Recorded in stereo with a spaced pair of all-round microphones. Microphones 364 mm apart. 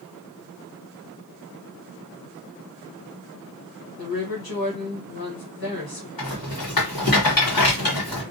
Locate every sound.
4.0 s a woman speaking: 75° left (ahead or behind), 1.4 m
6.2 s a rattle: 70° left (ahead or behind), 1.4 m